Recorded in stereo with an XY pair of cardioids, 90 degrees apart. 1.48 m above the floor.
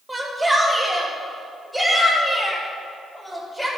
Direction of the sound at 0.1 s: Straight ahead.